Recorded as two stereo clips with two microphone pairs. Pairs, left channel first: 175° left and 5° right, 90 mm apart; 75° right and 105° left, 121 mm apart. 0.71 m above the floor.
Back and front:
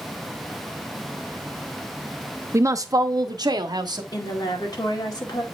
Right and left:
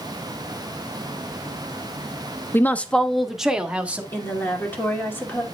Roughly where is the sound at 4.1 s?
Behind right.